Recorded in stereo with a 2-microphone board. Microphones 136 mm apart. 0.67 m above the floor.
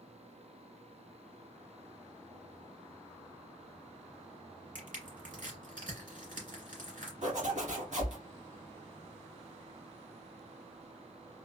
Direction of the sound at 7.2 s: 65° right (ahead or behind).